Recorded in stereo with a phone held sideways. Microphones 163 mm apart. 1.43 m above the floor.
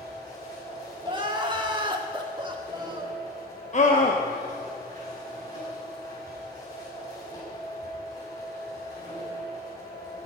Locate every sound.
0.0 s a machine running: 20° left (ahead or behind), 6.5 m
1.0 s crying: 30° right (ahead or behind), 1.4 m
3.7 s a scream: 45° left (ahead or behind), 1.1 m